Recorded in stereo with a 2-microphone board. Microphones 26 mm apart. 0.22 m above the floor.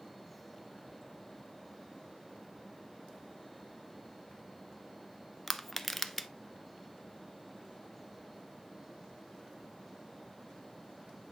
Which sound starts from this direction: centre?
Crushing, at 5.5 s.